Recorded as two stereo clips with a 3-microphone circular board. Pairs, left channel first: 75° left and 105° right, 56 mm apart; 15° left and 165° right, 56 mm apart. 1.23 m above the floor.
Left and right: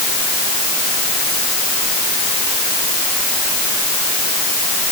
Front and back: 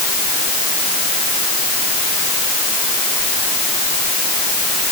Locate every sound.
Only background noise.